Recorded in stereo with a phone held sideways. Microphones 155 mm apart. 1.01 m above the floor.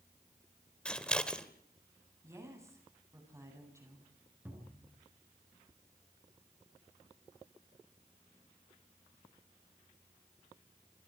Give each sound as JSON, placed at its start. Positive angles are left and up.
{"t": 0.8, "sound": "scissors", "side_deg": 5, "distance_m": 1.7}
{"t": 2.2, "sound": "a woman speaking", "side_deg": -20, "distance_m": 8.5}
{"t": 4.5, "sound": "a cupboard door", "side_deg": -10, "distance_m": 7.5}